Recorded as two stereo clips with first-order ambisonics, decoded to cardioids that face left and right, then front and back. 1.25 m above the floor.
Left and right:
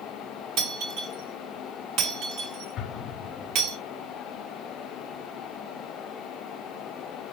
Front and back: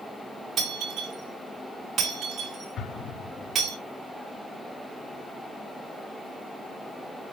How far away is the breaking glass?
About 5 m.